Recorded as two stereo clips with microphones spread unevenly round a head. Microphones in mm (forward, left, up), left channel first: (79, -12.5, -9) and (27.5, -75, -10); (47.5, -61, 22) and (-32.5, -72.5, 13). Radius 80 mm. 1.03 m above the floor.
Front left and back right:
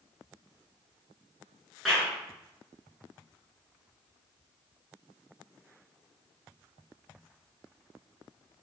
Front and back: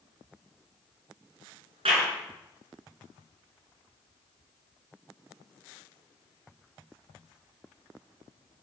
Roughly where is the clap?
Behind left.